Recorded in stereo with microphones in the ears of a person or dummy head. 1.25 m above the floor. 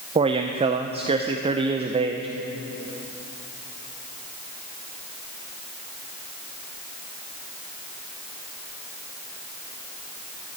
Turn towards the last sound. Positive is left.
turn(degrees=-35)  # may be behind; listen again after turning